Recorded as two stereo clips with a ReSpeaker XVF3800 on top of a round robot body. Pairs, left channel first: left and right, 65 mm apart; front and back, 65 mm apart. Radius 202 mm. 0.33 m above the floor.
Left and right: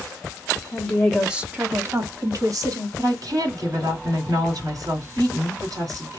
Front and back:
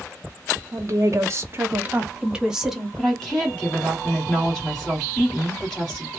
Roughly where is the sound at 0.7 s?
Behind.